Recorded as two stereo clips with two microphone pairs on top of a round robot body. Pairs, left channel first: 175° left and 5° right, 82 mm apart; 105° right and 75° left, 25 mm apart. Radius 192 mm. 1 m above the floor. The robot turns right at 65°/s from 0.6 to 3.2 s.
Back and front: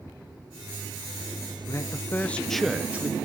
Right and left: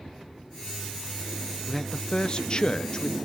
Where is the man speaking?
160° right, 0.7 m; by 3.2 s 65° right, 0.7 m.